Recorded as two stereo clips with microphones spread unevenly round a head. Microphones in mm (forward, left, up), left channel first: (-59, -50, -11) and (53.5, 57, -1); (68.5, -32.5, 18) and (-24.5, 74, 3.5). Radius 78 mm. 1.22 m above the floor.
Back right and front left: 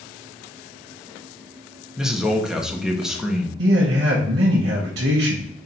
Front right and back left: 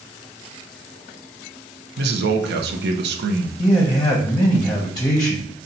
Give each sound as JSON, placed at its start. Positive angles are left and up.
{"t": 2.0, "sound": "a man speaking", "azimuth_deg": 130, "distance_m": 0.7}
{"t": 3.6, "sound": "a man speaking", "azimuth_deg": 15, "distance_m": 0.8}